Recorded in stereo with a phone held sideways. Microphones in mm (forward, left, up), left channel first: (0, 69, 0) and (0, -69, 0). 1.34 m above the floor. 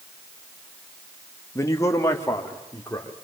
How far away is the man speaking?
About 1.7 m.